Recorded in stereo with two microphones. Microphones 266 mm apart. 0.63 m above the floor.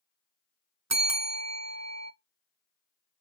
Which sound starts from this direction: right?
A bell, at 0.9 s.